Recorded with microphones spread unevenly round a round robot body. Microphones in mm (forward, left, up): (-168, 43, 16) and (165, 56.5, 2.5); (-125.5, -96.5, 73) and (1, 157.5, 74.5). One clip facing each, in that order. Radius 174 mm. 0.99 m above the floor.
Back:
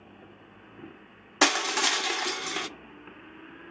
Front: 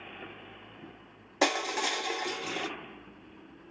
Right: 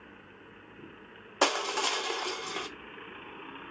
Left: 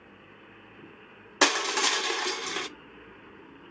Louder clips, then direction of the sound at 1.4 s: Back 2 dB, left 2 dB; 125° left.